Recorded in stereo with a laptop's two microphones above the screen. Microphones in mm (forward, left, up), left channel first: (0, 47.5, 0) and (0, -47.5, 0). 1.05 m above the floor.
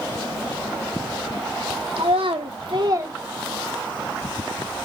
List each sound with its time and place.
2.0 s a child speaking: 80° right, 1.1 m; by 4.1 s 20° left (ahead or behind), 1.2 m